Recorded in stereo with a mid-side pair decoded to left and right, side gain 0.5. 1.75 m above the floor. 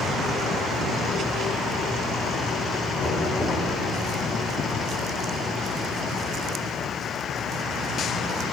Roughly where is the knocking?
Ahead.